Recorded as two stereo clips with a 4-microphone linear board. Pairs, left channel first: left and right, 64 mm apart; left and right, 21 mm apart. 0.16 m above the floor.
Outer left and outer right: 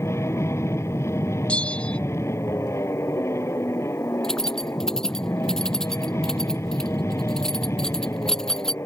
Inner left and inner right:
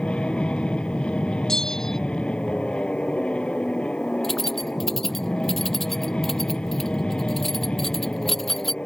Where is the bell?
15° left (ahead or behind).